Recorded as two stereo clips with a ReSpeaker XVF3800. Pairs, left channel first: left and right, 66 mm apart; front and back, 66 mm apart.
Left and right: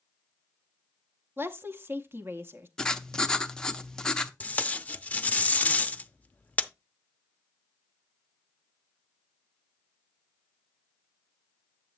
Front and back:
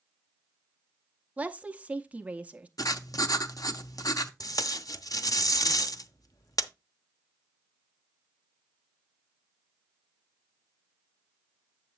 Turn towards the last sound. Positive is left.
turn(degrees=20)